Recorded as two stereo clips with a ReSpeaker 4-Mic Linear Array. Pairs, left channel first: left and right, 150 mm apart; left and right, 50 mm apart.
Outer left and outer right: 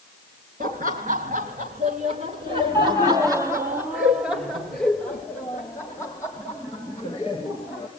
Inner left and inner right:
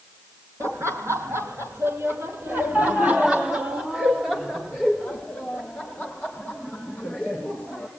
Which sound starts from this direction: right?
Laughter, at 0.6 s.